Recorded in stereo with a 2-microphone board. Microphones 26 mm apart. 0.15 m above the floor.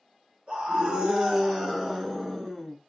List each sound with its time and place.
0.5 s a scream: 35° right (ahead or behind), 1.9 m; by 2.8 s 10° left (ahead or behind), 1.5 m